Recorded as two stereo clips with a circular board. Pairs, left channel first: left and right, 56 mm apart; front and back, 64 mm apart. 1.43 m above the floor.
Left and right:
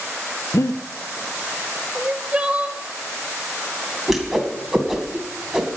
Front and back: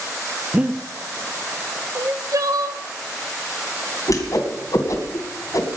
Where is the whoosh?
5° right, 2.5 m.